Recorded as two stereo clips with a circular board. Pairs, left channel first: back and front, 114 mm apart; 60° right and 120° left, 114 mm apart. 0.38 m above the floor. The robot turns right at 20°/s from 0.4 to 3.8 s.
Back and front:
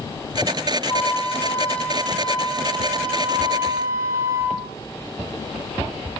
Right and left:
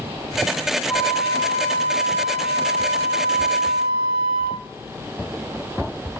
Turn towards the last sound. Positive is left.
turn(degrees=-65)